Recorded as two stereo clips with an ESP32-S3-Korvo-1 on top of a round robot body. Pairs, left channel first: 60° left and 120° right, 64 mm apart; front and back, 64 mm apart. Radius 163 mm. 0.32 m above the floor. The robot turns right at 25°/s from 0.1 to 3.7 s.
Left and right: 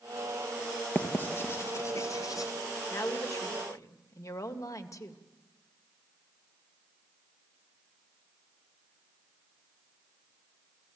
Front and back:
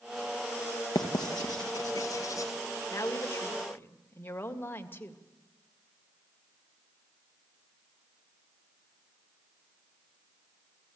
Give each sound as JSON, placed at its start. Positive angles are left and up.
{"t": 0.9, "sound": "writing", "azimuth_deg": -5, "distance_m": 2.5}
{"t": 2.9, "sound": "a woman speaking", "azimuth_deg": 30, "distance_m": 2.0}